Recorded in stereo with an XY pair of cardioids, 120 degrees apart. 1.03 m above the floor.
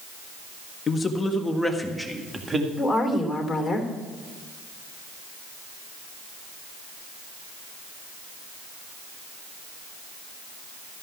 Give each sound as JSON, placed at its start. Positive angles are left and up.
{"t": 0.9, "sound": "a man speaking", "azimuth_deg": 30, "distance_m": 1.6}
{"t": 2.8, "sound": "a woman speaking", "azimuth_deg": 10, "distance_m": 3.0}